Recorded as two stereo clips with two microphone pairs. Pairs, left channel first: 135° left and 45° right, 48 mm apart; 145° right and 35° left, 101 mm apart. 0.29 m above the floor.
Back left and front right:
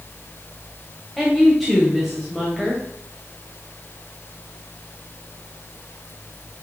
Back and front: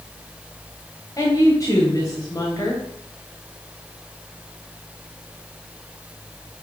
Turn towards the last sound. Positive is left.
turn(degrees=-140)